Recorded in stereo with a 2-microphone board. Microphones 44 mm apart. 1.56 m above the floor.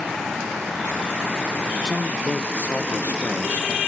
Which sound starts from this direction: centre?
A man speaking, at 1.9 s.